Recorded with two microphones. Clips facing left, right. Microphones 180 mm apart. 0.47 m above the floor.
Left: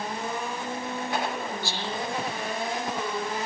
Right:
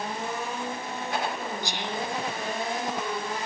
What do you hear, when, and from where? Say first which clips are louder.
1.6 s whispering: even; 15° right (ahead or behind), 0.7 m